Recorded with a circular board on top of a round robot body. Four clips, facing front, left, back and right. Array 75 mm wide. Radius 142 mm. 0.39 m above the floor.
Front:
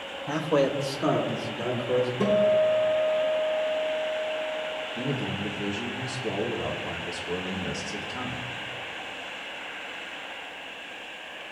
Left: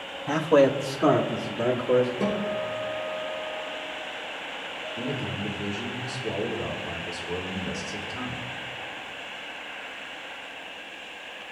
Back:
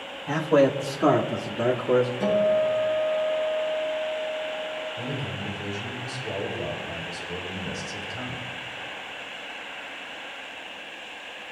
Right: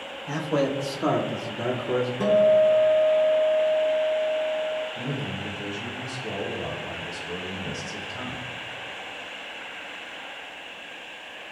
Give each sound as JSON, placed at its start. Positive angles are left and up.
{"t": 0.3, "sound": "a man speaking", "azimuth_deg": 90, "distance_m": 1.6}
{"t": 2.2, "sound": "a guitar", "azimuth_deg": -45, "distance_m": 6.0}
{"t": 5.0, "sound": "a man speaking", "azimuth_deg": -20, "distance_m": 3.5}